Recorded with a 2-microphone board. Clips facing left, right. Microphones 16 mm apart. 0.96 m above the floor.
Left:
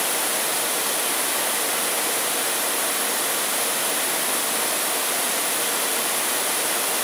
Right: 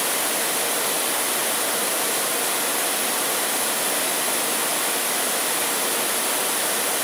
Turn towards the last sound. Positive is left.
No sound to turn to.